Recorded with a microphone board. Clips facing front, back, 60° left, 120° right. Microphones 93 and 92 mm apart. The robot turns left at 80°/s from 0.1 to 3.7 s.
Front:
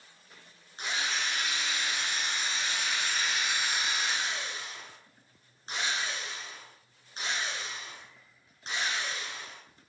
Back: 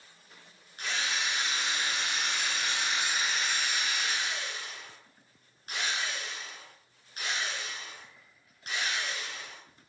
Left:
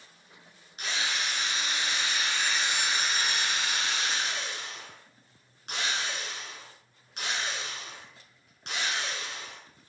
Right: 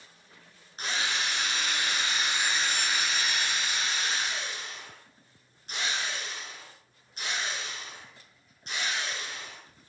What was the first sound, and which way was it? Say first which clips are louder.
A drill: even, right 1 dB; 65° right.